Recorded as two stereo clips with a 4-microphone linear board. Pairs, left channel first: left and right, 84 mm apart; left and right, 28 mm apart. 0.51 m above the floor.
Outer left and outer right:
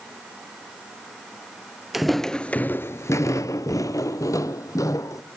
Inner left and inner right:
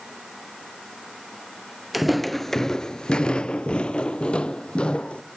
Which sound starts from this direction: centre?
Footsteps, at 1.9 s.